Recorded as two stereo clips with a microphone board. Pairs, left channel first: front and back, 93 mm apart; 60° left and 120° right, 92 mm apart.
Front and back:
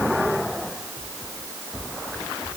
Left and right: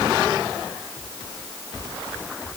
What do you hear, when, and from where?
Only background noise.